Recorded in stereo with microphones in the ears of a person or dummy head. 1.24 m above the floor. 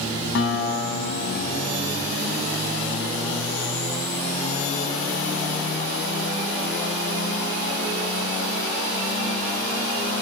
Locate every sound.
0.3 s a guitar: 80° left, 4 m